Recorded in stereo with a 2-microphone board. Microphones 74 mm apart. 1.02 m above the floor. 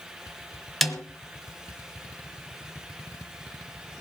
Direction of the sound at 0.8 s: Centre (ahead or behind).